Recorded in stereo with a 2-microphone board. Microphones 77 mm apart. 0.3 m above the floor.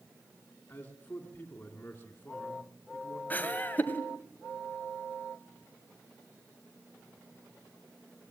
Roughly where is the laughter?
Left.